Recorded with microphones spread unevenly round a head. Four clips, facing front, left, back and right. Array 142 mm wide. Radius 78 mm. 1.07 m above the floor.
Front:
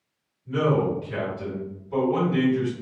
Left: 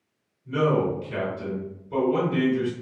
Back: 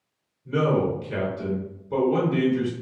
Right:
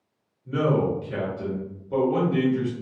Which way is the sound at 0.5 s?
140° right.